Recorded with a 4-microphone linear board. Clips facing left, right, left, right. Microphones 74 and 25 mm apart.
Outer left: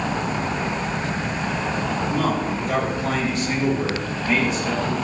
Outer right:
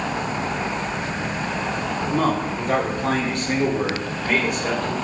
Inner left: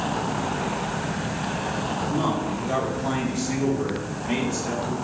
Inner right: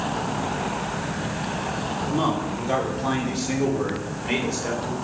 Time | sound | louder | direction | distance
2.1 | a man speaking | outer right 3 dB, inner right 2 dB | 35° right (ahead or behind) | 2.5 m